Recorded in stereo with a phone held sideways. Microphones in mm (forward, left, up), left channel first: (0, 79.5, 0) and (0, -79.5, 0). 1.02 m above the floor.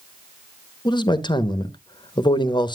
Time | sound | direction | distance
0.8 | a man speaking | 30° left (ahead or behind) | 0.8 m